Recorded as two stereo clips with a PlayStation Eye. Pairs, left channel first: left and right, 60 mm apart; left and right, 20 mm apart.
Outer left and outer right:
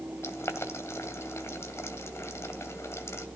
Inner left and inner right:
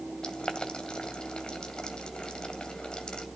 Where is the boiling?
50° left (ahead or behind), 2.5 m.